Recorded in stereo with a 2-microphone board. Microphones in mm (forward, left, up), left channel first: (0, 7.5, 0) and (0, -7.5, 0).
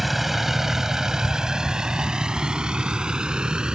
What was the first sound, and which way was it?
A vehicle, 10° right (ahead or behind).